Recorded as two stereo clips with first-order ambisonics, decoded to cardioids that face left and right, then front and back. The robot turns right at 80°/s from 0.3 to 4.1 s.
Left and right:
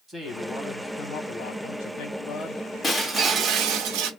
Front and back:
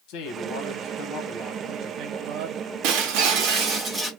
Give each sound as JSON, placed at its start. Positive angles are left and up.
{"t": 0.1, "sound": "a man speaking", "azimuth_deg": -15, "distance_m": 1.2}
{"t": 2.8, "sound": "breaking glass", "azimuth_deg": 165, "distance_m": 1.0}